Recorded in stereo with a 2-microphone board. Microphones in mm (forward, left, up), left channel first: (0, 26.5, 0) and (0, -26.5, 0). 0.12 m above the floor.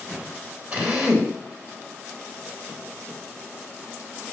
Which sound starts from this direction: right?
A drill, at 0.7 s.